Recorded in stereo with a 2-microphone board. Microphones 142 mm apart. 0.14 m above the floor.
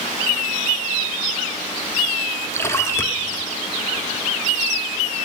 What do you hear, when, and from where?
2.5 s a splash: 20° left (ahead or behind), 1.2 m